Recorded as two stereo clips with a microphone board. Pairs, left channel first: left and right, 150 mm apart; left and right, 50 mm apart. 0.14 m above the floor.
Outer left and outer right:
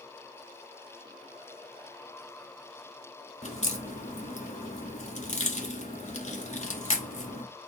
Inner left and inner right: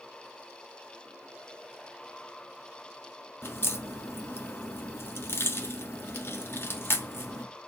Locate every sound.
3.4 s a crack: 50° left (ahead or behind), 1.2 m